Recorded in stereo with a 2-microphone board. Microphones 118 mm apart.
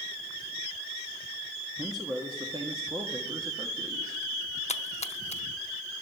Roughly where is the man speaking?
Right.